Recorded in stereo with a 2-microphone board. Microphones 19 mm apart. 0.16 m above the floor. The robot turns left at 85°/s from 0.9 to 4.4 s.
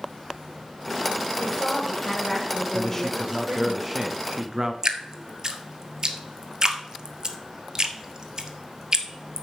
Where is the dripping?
30° right (ahead or behind), 1.1 m.